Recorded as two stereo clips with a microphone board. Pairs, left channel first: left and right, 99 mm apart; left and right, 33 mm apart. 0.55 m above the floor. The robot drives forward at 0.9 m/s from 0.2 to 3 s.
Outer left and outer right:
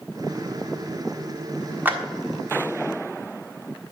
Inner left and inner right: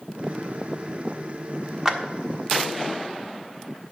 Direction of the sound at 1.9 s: 20° right (ahead or behind).